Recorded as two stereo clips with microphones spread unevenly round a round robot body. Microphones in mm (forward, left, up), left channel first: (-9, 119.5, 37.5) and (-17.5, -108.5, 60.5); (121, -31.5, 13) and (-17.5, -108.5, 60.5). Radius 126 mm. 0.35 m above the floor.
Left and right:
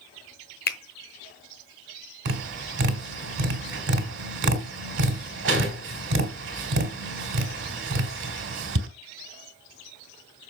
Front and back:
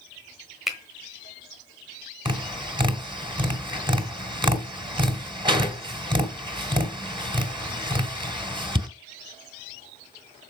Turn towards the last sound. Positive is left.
turn(degrees=-85)